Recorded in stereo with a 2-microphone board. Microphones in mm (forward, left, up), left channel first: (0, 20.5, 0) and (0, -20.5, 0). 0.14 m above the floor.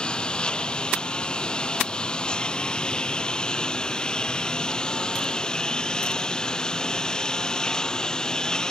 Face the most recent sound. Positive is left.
turn(degrees=20)  # may be behind; listen again after turning